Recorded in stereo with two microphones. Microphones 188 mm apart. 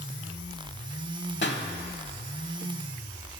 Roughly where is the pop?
Left.